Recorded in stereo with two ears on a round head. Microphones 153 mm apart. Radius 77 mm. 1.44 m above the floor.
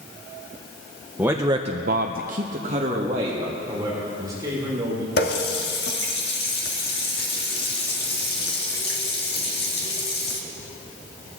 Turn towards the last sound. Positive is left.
turn(degrees=65)  # may be behind; listen again after turning